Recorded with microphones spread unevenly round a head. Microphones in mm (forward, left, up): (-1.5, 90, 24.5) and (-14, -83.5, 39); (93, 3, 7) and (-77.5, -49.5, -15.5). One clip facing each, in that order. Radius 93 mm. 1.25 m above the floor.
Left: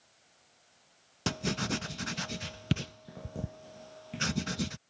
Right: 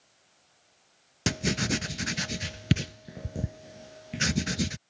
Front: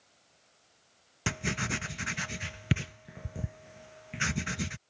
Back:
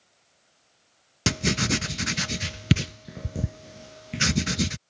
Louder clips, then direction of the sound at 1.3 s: Right 4 dB, back 9 dB; 150° right.